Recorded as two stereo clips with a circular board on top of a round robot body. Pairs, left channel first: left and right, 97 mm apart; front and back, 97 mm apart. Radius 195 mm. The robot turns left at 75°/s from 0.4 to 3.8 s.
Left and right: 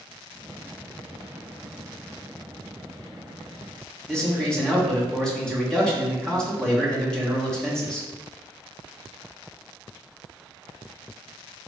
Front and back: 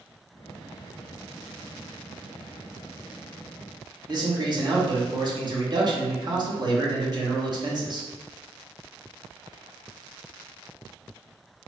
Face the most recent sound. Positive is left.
turn(degrees=170)